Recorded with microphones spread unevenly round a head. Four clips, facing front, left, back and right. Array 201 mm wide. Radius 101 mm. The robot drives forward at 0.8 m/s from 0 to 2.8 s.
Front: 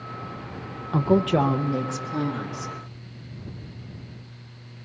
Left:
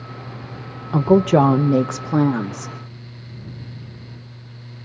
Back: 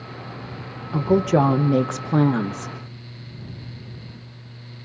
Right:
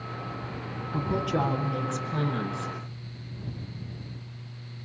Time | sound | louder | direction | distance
0.9 | a woman speaking | left 14 dB, back 2 dB | 85° left | 0.9 m